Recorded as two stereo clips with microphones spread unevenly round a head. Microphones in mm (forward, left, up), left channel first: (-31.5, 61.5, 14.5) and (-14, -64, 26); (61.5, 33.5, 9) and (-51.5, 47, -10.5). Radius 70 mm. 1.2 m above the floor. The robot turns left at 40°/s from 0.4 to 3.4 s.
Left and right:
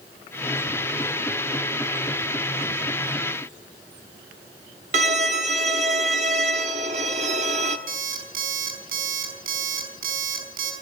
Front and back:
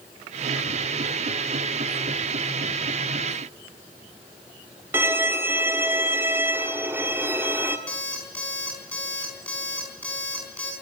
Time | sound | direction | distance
4.9 | a violin | 110° right | 1.4 m
7.9 | an alarm clock | 85° right | 4.5 m